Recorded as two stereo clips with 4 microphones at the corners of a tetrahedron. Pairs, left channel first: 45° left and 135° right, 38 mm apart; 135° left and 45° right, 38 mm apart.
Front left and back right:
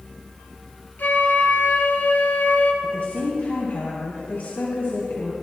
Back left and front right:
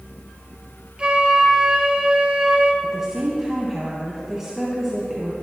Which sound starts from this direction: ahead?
A flute, at 1.0 s.